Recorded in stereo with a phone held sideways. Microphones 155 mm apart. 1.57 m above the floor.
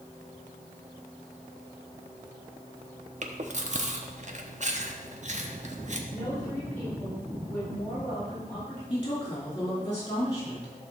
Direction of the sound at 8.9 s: 25° left (ahead or behind).